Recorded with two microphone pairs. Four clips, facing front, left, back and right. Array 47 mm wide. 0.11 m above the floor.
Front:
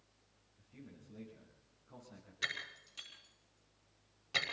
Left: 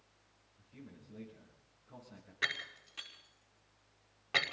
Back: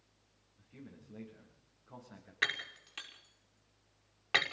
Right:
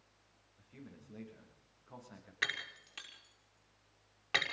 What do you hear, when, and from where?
0.6 s a man speaking: 120° right, 9 m
2.4 s breaking glass: 155° right, 5.5 m